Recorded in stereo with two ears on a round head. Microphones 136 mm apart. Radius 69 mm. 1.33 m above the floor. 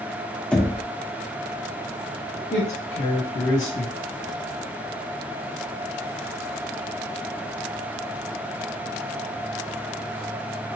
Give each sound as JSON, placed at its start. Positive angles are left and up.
{"t": 0.5, "sound": "knocking", "side_deg": 10, "distance_m": 0.6}
{"t": 2.5, "sound": "a man speaking", "side_deg": 45, "distance_m": 1.5}